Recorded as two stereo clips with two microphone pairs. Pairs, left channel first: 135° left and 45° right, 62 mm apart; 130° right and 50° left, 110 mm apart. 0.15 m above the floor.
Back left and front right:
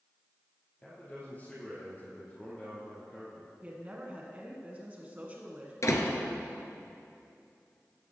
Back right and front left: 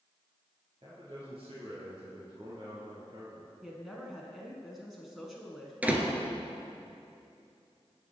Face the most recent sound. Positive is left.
turn(degrees=125)